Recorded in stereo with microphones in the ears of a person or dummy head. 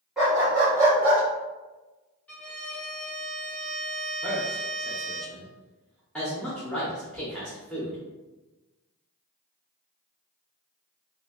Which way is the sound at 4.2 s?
5° left (ahead or behind).